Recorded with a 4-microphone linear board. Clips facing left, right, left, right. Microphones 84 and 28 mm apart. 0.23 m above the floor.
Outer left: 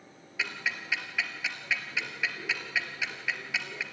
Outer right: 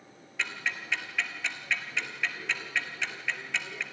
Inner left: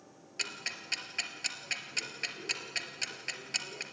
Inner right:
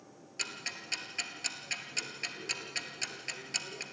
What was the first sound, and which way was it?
Ticking, 5° left (ahead or behind).